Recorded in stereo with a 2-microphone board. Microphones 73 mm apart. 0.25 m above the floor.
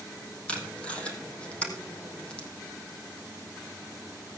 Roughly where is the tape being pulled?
Centre.